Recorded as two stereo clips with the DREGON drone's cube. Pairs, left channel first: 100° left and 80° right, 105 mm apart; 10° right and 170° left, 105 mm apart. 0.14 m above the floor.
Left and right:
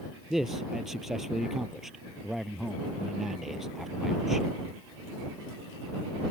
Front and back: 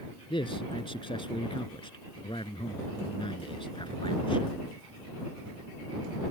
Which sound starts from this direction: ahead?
A man speaking, at 0.3 s.